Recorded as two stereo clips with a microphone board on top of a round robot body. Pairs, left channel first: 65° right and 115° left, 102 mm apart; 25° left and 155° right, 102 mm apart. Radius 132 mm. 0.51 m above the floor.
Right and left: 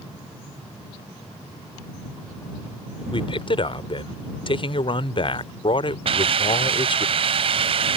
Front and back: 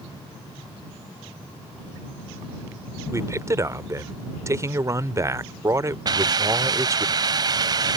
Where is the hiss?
150° left.